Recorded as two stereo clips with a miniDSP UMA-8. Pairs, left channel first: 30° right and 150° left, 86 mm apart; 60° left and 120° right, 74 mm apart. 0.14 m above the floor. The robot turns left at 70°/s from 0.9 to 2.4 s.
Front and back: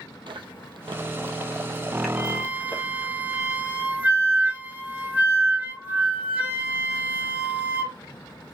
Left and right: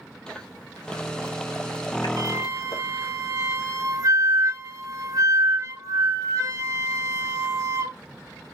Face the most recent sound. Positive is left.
turn(degrees=-145)